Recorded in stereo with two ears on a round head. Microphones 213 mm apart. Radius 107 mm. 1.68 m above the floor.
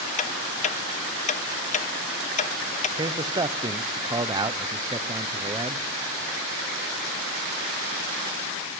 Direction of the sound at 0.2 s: 30° left (ahead or behind).